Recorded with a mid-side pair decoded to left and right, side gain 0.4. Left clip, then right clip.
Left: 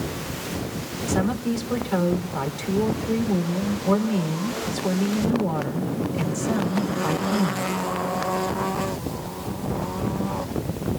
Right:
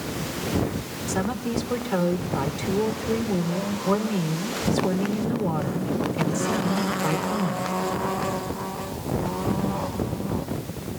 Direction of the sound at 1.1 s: 5° right.